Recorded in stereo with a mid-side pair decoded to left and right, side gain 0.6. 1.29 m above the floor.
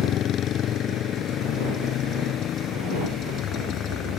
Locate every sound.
0.0 s a motorcycle: 50° left